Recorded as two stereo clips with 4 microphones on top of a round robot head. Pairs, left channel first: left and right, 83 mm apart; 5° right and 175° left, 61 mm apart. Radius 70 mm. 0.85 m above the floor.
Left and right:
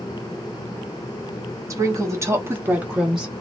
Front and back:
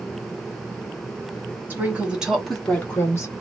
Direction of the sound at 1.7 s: 130° right.